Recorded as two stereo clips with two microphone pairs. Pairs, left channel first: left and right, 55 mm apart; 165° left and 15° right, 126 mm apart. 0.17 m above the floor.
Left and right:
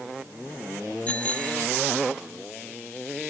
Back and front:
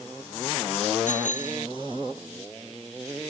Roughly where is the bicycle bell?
Behind left.